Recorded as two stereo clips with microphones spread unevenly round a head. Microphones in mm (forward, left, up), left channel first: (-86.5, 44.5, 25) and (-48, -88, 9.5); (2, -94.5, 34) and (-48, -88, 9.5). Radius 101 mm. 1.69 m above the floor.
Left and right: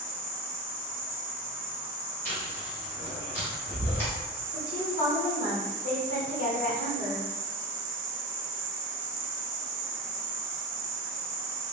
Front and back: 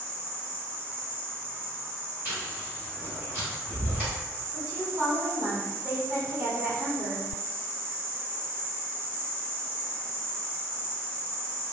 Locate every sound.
0.0 s an insect: 135° right, 0.9 m
2.2 s chewing: 85° left, 1.5 m
4.5 s a woman speaking: 120° left, 0.9 m